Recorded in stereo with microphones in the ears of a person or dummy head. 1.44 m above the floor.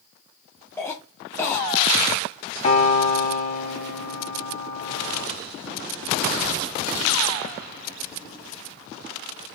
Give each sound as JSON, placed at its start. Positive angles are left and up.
{"t": 0.8, "sound": "a cough", "side_deg": 15, "distance_m": 0.6}
{"t": 2.6, "sound": "a piano", "side_deg": 35, "distance_m": 1.0}